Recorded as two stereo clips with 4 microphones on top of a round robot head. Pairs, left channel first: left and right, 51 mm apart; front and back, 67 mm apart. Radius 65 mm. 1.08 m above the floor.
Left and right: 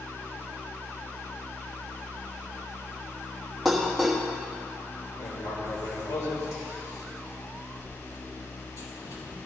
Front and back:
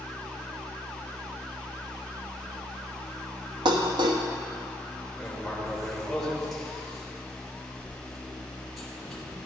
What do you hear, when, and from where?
3.6 s dishes clattering: straight behind, 1.1 m
5.2 s writing: 90° left, 3 m